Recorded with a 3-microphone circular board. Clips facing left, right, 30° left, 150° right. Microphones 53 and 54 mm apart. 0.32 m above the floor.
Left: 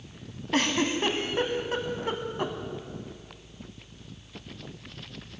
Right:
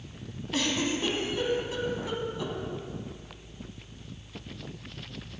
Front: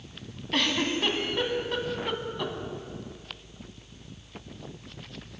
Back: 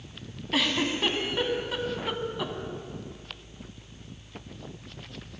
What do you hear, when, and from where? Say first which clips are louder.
0.5 s a giggle: left 3 dB, even; 125° left, 1.1 m